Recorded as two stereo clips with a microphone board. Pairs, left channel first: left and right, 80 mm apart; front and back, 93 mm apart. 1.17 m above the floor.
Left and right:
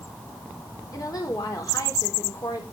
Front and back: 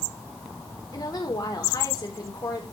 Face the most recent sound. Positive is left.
turn(degrees=45)